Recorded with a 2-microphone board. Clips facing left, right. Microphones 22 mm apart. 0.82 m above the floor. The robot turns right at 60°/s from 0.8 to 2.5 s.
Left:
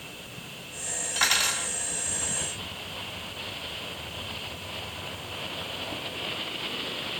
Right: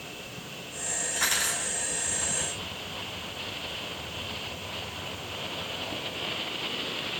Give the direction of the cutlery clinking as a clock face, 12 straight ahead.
11 o'clock.